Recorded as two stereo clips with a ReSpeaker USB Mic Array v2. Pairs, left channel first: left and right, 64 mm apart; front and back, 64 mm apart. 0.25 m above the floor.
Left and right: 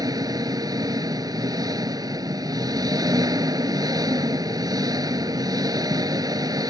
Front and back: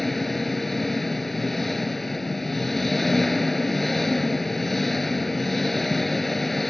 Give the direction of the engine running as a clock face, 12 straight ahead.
3 o'clock.